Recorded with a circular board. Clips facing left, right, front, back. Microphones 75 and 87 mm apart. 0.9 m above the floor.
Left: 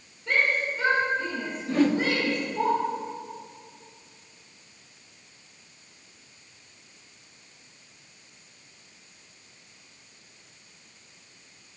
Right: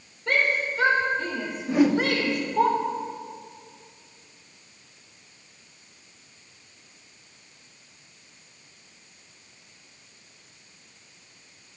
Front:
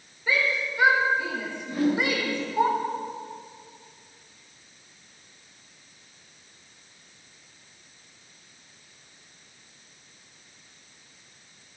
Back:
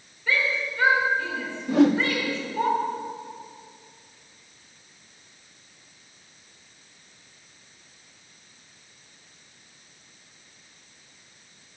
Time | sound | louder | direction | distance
0.3 | a shout | right 1 dB, even | 75° right | 4 m
1.7 | a whoosh | right 2 dB, back 6 dB | 170° right | 0.9 m